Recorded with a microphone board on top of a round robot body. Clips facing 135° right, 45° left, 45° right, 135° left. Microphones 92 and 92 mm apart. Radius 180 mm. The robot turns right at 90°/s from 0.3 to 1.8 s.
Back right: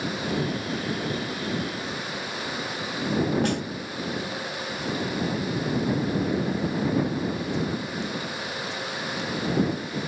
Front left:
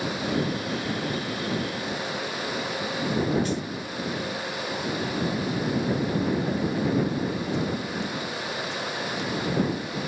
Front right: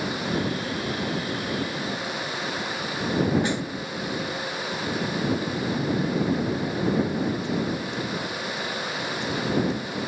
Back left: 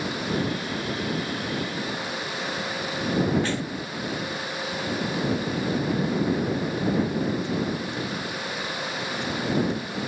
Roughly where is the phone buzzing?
I don't hear a phone buzzing.